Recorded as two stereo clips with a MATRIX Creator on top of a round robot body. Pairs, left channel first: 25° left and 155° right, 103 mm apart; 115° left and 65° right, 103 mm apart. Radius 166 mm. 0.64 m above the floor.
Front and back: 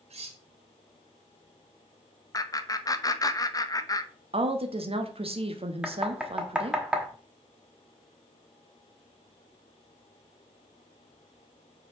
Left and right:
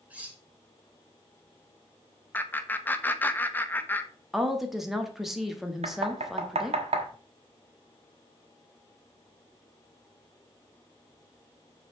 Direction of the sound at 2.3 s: 50° left.